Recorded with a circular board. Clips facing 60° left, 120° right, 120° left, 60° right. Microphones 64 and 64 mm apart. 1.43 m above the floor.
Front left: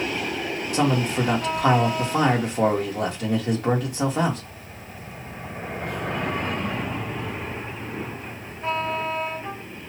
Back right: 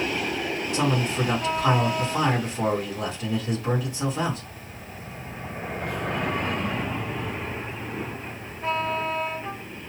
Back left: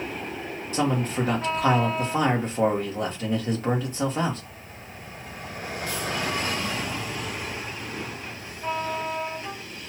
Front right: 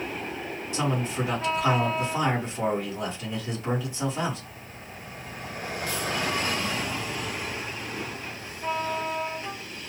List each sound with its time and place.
0.7 s a man speaking: 75° left, 1.8 m